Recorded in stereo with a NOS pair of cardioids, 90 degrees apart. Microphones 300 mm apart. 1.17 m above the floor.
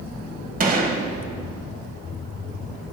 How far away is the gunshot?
About 0.9 m.